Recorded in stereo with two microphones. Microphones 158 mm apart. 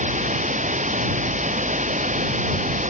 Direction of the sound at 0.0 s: 55° right (ahead or behind).